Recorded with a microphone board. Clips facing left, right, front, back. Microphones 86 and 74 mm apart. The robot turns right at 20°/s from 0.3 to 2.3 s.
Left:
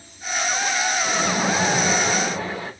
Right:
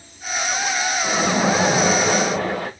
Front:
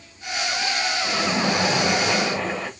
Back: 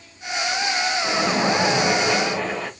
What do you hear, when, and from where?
1.0 s a splash: 120° right, 1.4 m; by 2.7 s 95° right, 1.4 m